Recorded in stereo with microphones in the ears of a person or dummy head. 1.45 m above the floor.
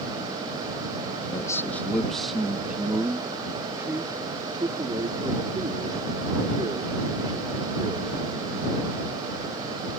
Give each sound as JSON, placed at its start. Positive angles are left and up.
{"t": 1.3, "sound": "a man speaking", "side_deg": 20}